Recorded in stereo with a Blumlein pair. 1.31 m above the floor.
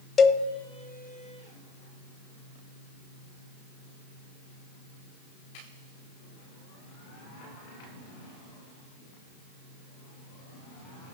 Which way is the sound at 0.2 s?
25° left.